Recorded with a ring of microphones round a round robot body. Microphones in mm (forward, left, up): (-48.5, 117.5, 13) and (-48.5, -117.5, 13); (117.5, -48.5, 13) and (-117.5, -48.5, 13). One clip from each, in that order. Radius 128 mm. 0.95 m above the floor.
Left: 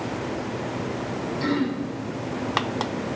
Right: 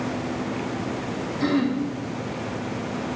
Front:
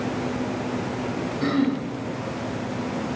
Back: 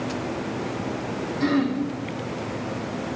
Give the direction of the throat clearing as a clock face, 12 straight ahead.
5 o'clock.